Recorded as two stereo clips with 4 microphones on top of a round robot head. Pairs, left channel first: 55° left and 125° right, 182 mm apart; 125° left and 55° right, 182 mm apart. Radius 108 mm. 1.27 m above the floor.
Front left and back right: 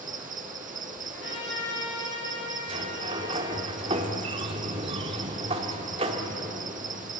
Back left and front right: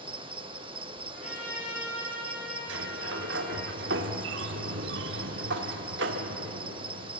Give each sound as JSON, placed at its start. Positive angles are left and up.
{"t": 0.0, "sound": "an insect", "azimuth_deg": -105, "distance_m": 0.9}
{"t": 1.1, "sound": "a trumpet", "azimuth_deg": 75, "distance_m": 8.0}
{"t": 2.7, "sound": "a sliding door", "azimuth_deg": -70, "distance_m": 1.2}